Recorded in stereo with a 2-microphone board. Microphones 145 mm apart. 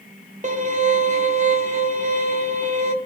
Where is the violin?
60° right (ahead or behind), 0.6 m.